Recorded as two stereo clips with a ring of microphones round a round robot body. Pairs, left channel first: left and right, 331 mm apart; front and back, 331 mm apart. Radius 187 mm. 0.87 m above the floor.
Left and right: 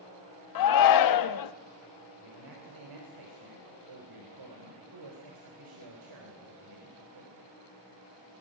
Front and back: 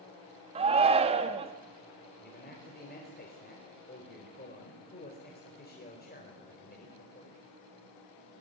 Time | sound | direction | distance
0.6 | a shout | 105° left | 1.3 m
2.2 | a man speaking | 60° right | 4 m